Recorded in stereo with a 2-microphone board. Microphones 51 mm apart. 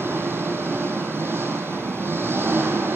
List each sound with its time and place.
0.0 s an engine running: 50° right (ahead or behind), 3.5 m